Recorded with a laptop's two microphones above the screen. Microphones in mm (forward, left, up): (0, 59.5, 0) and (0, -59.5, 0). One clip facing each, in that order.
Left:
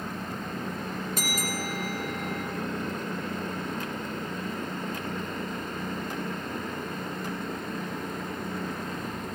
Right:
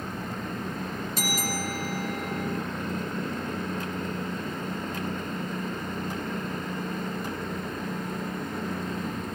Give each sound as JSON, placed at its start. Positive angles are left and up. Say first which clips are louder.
{"t": 1.2, "sound": "a bell", "louder": "right 1 dB", "side_deg": 50, "distance_m": 3.5}